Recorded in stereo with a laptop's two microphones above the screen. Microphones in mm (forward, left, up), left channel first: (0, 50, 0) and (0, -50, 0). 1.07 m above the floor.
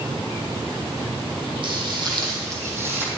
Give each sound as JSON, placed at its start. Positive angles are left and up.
{"t": 1.6, "sound": "footsteps", "side_deg": -55, "distance_m": 2.0}